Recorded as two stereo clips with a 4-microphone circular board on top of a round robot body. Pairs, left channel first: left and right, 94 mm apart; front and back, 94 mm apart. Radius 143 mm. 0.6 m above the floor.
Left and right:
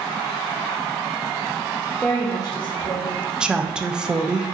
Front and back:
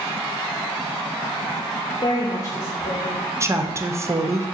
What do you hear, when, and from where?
2.0 s a woman speaking: 10° left, 0.8 m; by 3.2 s 70° left, 1.8 m
3.4 s a woman speaking: 165° right, 0.6 m